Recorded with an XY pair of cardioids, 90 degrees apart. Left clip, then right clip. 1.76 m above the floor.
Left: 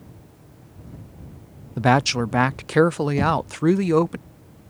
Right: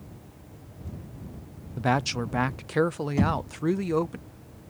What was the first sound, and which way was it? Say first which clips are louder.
A woman speaking: left 7 dB; 55° left.